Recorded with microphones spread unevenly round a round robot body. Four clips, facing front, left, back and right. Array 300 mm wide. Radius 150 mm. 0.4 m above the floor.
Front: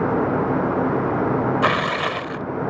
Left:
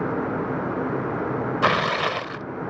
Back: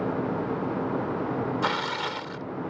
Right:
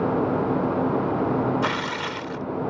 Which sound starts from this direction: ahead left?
Tearing paper, at 1.6 s.